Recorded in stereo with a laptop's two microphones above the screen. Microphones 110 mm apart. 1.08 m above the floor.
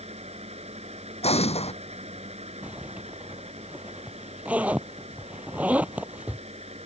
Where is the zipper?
10° right (ahead or behind).